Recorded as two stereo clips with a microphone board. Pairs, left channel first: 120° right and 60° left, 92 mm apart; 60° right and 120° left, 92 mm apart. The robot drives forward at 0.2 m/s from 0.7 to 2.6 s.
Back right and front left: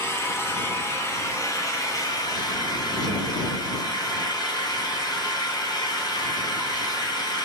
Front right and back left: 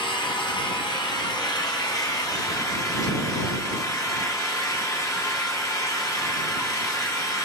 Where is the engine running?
65° right, 0.8 m; by 7.5 s 100° right, 0.8 m.